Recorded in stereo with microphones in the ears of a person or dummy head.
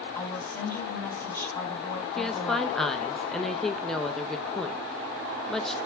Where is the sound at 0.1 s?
15° left (ahead or behind), 4 m.